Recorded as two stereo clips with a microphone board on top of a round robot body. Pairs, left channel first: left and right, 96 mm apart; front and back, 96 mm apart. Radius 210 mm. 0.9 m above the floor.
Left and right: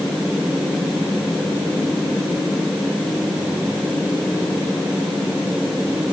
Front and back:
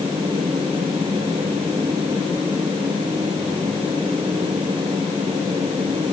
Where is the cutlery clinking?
No cutlery clinking in this recording.